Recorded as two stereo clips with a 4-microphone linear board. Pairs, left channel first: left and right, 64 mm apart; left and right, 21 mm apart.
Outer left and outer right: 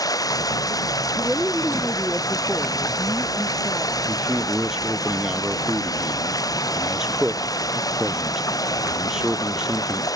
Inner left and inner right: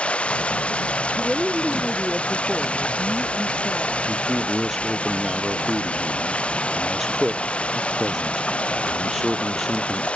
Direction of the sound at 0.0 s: 65° left (ahead or behind).